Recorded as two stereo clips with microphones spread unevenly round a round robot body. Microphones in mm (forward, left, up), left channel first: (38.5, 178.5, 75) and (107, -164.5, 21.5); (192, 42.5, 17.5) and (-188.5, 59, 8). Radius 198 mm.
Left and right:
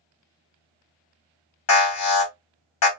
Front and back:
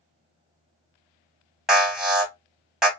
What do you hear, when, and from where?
1.7 s an alarm: 90° left, 2 m